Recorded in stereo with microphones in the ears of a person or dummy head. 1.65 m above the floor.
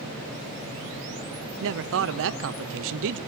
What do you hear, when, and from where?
1.6 s a man speaking: 75° right (ahead or behind), 0.9 m